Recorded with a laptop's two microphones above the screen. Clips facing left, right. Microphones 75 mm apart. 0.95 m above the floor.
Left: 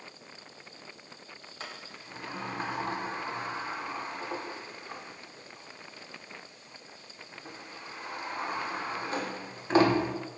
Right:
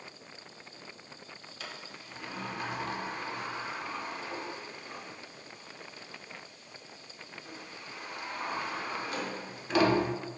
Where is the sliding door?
35° left (ahead or behind), 0.6 m.